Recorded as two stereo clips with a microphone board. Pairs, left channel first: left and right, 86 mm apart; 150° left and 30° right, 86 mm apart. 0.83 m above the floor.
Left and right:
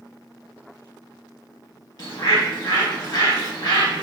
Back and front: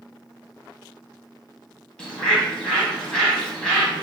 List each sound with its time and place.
2.0 s a bird: 70° left, 1.0 m